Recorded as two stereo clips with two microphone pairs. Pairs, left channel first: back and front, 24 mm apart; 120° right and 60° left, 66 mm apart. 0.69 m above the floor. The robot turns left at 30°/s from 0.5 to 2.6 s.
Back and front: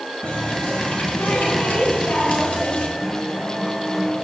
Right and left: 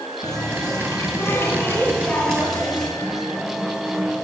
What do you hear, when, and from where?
0.2 s a running tap: 145° right, 5.5 m; by 2.9 s 155° left, 5.5 m
3.0 s a guitar: 65° left, 2 m